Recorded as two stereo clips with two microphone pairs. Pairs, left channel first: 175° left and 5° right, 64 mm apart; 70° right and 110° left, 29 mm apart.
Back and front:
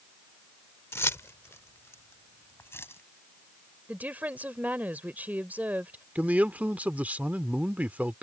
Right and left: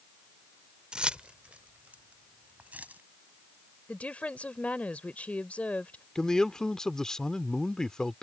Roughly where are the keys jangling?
Behind left.